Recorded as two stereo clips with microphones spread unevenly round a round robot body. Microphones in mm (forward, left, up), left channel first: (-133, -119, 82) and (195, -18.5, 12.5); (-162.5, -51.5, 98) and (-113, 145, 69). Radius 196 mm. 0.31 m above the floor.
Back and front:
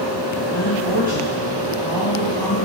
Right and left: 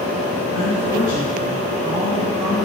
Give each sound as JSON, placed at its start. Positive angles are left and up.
{"t": 0.5, "sound": "a woman speaking", "azimuth_deg": -75, "distance_m": 2.5}